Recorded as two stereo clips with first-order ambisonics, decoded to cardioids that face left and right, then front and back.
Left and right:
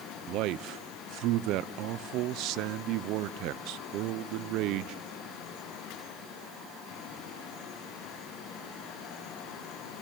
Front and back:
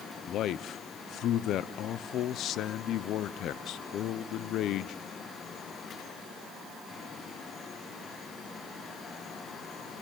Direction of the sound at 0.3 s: 50° right.